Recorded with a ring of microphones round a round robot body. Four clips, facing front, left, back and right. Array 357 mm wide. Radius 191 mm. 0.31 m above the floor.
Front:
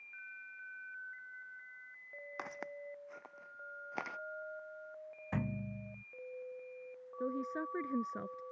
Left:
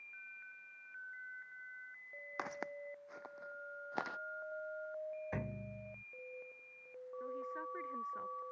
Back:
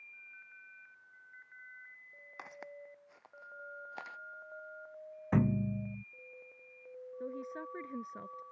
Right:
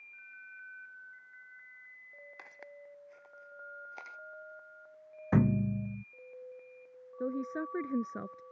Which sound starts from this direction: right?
A woman speaking, at 7.2 s.